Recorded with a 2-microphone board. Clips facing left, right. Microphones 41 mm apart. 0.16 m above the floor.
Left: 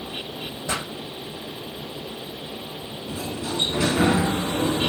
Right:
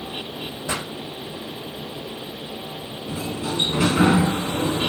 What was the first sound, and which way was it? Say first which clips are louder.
A pop: even; 15° right (ahead or behind).